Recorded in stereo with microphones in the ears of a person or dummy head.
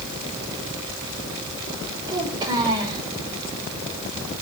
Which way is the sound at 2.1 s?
20° right (ahead or behind).